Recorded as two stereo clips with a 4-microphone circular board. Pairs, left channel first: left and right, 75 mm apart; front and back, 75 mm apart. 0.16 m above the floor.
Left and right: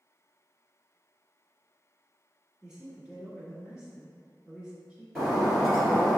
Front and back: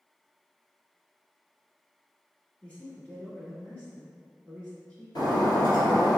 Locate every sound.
2.6 s a man speaking: 30° right, 1.2 m
5.2 s breaking glass: straight ahead, 1.8 m